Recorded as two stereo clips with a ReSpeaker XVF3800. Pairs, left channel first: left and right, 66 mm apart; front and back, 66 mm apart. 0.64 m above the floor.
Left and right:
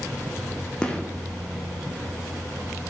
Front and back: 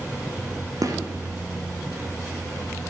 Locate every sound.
0.8 s a gunshot: 165° left, 0.6 m